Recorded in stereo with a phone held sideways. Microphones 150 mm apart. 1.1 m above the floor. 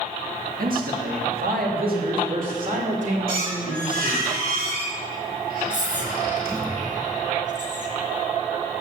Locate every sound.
0.6 s a man speaking: 70° right (ahead or behind), 1.9 m; by 4.2 s 50° right (ahead or behind), 3.5 m
3.3 s a squeak: 80° right, 3.5 m
5.7 s whispering: 55° right (ahead or behind), 1.7 m